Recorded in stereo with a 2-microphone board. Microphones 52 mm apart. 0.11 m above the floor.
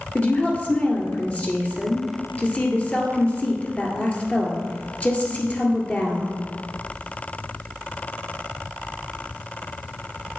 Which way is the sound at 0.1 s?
25° left (ahead or behind).